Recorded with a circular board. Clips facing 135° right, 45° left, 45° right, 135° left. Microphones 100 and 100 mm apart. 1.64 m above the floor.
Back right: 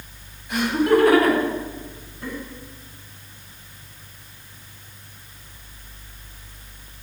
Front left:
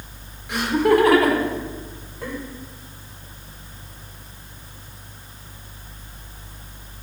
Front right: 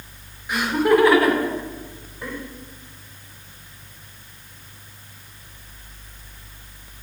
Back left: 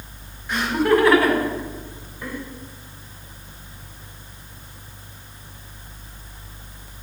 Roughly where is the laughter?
Ahead left.